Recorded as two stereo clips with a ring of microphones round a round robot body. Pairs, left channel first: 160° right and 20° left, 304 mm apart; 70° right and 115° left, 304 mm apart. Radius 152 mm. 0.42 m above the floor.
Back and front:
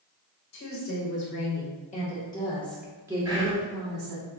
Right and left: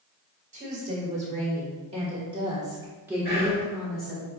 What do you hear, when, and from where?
0.5 s a woman speaking: 175° left, 1.6 m; by 4.2 s 15° left, 1.2 m
3.2 s whispering: 40° right, 1.6 m